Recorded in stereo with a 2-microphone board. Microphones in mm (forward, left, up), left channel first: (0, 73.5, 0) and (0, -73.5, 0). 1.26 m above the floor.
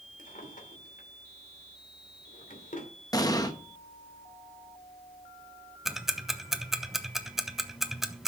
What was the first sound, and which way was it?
A drawer, 65° left (ahead or behind).